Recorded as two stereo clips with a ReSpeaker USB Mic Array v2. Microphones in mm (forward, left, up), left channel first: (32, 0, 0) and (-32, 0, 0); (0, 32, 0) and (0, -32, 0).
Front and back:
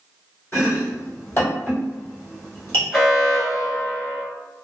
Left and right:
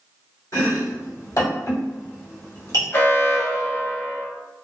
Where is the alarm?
95° left, 1.0 m.